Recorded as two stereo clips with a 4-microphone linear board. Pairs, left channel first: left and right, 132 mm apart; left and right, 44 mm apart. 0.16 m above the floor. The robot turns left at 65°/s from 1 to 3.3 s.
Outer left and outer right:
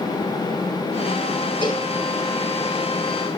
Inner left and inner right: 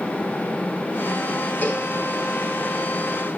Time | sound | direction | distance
1.6 | a cowbell | 40° left (ahead or behind) | 1.9 m